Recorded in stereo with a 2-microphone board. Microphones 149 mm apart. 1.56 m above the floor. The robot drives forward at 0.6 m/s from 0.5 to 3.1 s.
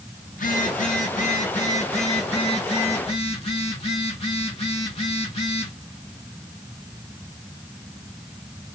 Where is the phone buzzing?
65° left (ahead or behind), 2.5 m; by 5.7 s 40° left (ahead or behind), 3.5 m.